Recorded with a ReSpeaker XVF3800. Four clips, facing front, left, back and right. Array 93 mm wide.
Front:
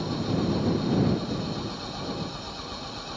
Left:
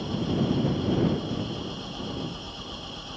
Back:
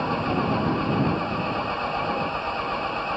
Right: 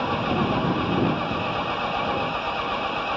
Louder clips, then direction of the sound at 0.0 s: Right 4 dB, back 4 dB; 130° right.